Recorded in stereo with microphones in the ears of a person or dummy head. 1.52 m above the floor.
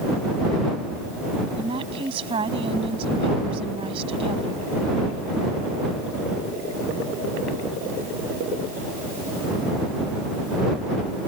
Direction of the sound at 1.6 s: 35° right (ahead or behind).